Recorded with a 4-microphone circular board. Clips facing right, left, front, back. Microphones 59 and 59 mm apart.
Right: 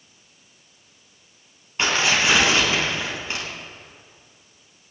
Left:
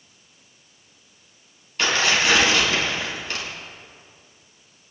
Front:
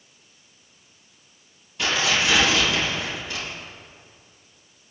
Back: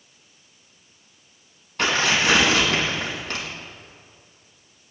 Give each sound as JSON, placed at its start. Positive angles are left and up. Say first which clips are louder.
{"t": 1.8, "sound": "tearing paper", "louder": "even, back 2 dB", "azimuth_deg": -155, "distance_m": 4.5}